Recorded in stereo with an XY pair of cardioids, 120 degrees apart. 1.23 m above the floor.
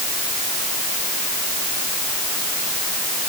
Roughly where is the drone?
No drone in this recording.